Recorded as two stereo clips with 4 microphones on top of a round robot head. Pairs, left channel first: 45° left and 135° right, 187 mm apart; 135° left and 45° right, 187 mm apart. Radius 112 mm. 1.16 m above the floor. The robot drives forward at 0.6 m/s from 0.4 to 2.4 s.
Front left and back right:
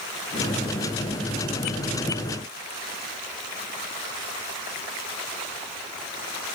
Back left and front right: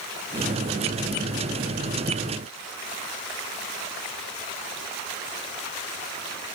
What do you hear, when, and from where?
Only background noise.